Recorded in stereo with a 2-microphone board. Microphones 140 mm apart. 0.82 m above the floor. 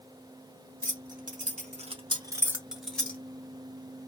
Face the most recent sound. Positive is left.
turn(degrees=10)  # may be behind; listen again after turning